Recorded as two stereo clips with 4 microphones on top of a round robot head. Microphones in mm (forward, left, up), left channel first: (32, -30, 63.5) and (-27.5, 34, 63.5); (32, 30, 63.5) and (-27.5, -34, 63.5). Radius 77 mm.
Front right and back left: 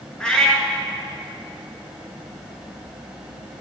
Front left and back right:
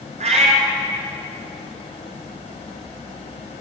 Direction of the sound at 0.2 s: 130° right.